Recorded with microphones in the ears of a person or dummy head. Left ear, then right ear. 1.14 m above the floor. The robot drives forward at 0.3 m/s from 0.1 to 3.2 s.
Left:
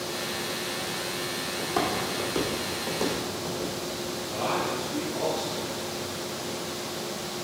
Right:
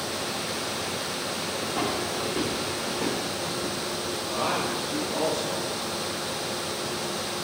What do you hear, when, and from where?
1.6 s footsteps: 60° left (ahead or behind), 2 m; by 3.7 s 50° left (ahead or behind), 3.5 m
4.3 s a man speaking: 70° right (ahead or behind), 1.2 m